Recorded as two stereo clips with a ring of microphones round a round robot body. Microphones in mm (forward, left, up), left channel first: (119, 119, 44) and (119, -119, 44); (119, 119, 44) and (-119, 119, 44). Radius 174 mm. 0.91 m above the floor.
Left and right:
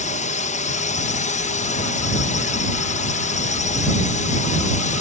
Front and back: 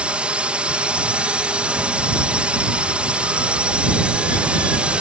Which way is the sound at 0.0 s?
100° left.